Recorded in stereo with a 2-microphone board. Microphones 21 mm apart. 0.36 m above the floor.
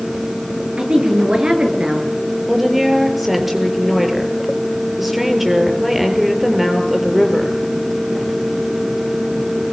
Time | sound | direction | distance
0.8 | a woman speaking | 55° right (ahead or behind) | 7.5 m
2.5 | a woman speaking | 10° right (ahead or behind) | 6.5 m